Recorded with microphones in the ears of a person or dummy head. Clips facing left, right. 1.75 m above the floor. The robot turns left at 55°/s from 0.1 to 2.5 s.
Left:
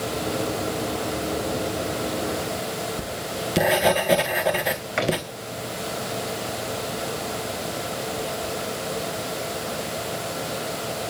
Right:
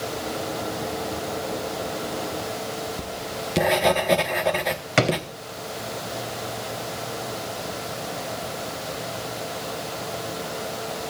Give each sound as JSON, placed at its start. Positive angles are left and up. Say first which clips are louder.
{"t": 3.0, "sound": "writing", "louder": "left 2 dB", "side_deg": 5, "distance_m": 1.2}
{"t": 5.0, "sound": "a drawer", "louder": "right 3 dB", "side_deg": -50, "distance_m": 3.5}